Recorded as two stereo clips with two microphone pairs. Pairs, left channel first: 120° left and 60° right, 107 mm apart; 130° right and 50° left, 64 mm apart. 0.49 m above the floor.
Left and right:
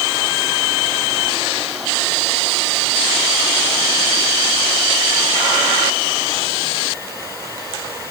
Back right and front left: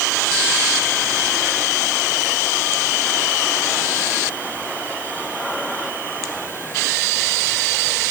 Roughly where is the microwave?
I don't hear a microwave.